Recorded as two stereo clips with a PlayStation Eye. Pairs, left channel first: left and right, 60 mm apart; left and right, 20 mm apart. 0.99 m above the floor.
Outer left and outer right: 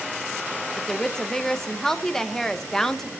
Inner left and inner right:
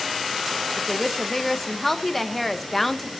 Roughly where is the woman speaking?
Centre.